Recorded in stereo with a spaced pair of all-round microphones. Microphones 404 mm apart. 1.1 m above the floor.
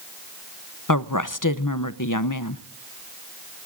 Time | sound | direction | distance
0.9 | a woman speaking | 50° left (ahead or behind) | 0.7 m